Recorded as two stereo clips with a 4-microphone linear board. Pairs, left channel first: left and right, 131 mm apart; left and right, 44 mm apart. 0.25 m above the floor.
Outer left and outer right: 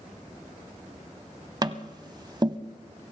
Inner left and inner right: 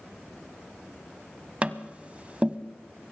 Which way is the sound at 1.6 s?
30° right (ahead or behind).